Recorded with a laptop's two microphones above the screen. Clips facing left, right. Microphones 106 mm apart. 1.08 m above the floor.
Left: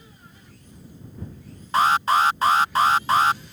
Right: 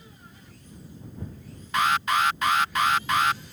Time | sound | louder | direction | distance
1.7 | an alarm | left 5 dB | 35° left (ahead or behind) | ?